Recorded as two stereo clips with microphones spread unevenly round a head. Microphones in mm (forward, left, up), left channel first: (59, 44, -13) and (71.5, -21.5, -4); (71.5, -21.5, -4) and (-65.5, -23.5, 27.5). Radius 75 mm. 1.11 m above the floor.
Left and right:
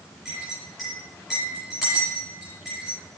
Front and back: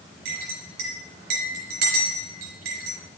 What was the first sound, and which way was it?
A clink, 170° right.